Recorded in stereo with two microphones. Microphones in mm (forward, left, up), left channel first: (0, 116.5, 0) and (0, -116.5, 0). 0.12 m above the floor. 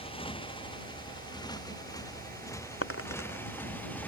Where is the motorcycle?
20° left (ahead or behind); by 4.1 s 5° left (ahead or behind).